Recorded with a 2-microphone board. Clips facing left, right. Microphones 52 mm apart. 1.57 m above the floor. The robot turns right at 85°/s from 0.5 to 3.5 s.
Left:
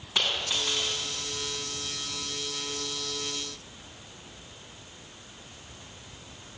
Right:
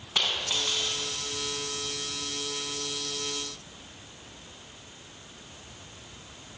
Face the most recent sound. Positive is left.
turn(degrees=-115)